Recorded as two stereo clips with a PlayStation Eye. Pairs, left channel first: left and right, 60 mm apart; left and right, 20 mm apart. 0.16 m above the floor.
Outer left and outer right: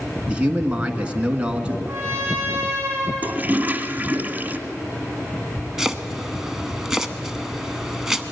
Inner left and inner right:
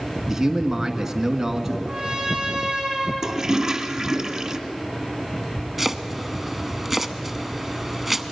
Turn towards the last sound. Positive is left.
turn(degrees=-5)  # may be behind; listen again after turning